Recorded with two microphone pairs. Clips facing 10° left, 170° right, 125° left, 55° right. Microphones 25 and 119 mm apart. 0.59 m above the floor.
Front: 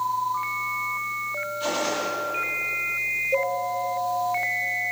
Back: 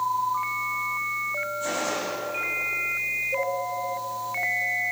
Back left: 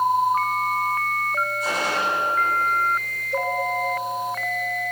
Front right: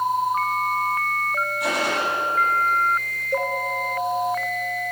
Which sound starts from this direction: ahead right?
A gunshot, at 1.6 s.